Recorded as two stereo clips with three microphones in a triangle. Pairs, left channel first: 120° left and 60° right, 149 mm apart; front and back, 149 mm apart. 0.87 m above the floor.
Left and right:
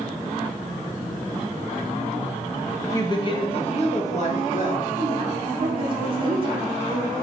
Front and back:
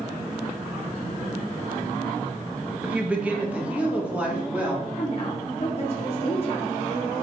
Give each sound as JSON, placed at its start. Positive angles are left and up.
{"t": 2.8, "sound": "a woman speaking", "azimuth_deg": 115, "distance_m": 0.6}
{"t": 5.0, "sound": "a woman speaking", "azimuth_deg": -20, "distance_m": 0.7}